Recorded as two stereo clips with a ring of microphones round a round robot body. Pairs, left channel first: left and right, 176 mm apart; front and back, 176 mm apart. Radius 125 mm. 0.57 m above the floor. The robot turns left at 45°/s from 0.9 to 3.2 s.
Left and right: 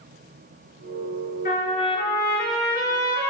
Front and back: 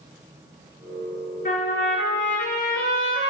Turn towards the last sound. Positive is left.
turn(degrees=-30)